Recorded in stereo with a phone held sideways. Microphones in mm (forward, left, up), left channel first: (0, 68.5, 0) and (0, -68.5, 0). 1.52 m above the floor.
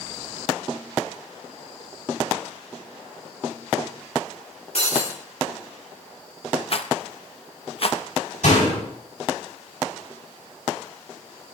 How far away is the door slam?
About 8.5 m.